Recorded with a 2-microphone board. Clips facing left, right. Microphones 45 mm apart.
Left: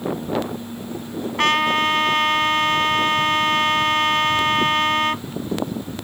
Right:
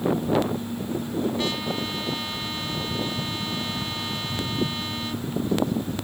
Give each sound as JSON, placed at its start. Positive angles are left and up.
{"t": 1.4, "sound": "a trumpet", "side_deg": 70}